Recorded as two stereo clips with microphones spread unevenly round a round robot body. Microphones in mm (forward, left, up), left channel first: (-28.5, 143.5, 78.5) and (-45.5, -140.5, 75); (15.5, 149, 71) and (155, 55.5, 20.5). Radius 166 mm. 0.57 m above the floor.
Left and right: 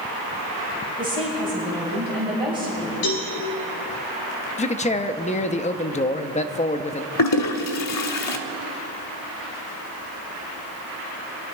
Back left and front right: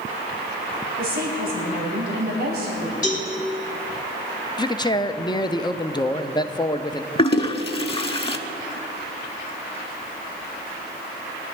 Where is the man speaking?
70° left, 0.6 m.